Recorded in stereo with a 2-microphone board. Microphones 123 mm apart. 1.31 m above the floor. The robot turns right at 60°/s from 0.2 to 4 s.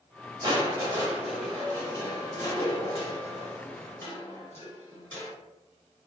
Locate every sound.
0.4 s crushing: 65° right, 1.3 m; by 5.3 s 150° left, 1.3 m